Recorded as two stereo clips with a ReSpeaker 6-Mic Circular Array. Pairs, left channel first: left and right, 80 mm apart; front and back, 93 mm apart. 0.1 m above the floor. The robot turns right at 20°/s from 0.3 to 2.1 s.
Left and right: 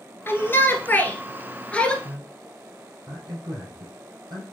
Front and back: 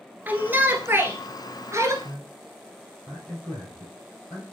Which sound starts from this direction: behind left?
A shout, at 0.3 s.